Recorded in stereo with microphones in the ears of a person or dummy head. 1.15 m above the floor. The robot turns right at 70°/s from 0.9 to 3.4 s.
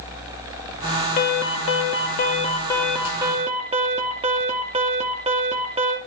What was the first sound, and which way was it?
An alarm, 55° left.